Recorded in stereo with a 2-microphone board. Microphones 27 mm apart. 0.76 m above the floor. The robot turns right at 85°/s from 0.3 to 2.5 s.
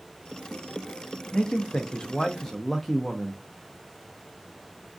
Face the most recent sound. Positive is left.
turn(degrees=170)